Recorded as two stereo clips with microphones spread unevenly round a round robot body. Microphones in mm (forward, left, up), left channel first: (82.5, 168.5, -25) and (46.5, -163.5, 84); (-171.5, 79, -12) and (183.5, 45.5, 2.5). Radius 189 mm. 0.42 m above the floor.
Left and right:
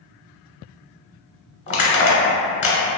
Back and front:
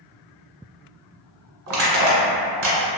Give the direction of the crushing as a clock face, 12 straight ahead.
11 o'clock.